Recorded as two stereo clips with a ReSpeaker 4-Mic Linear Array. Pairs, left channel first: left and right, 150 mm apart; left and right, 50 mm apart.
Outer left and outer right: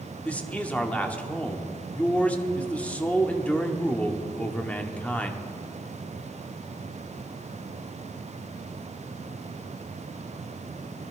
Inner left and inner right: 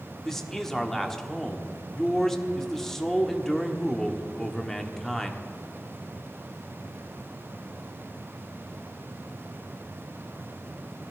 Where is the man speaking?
10° left (ahead or behind), 1.1 m.